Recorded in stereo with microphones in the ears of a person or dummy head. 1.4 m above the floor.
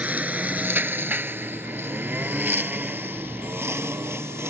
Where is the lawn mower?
10° right (ahead or behind).